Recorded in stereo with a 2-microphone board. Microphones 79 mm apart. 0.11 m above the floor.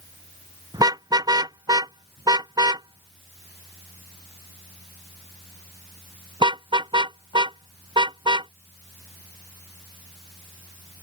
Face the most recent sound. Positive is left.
turn(degrees=-80)